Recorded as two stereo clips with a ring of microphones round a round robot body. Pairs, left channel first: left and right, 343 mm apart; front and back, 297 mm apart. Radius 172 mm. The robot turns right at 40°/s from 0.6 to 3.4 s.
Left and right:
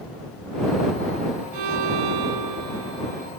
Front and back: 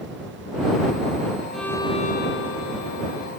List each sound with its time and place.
1.5 s a violin: 90° right; by 3.3 s 20° right